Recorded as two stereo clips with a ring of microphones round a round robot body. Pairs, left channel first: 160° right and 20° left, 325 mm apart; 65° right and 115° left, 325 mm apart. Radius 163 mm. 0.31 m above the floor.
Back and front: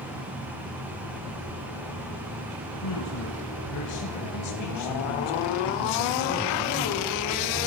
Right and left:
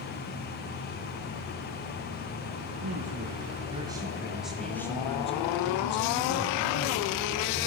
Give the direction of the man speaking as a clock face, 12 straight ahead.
6 o'clock.